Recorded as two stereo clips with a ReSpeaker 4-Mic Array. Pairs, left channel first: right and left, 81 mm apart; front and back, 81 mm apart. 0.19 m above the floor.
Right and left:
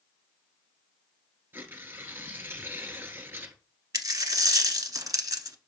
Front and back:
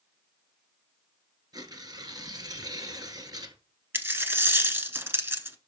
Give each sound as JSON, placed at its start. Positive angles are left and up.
{"t": 1.5, "sound": "tearing paper", "azimuth_deg": 150, "distance_m": 1.3}
{"t": 3.9, "sound": "a dropped coin", "azimuth_deg": 125, "distance_m": 0.8}